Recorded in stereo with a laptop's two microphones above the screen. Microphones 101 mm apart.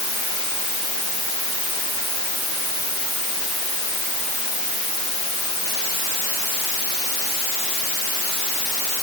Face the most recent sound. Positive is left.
No sound to turn to.